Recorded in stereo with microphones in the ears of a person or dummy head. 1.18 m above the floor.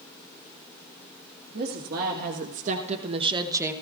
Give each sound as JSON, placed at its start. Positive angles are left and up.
{"t": 1.5, "sound": "a woman speaking", "side_deg": -55, "distance_m": 1.7}